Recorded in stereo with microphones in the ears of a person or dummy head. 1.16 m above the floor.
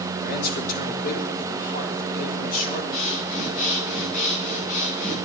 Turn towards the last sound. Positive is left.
turn(degrees=50)  # may be behind; listen again after turning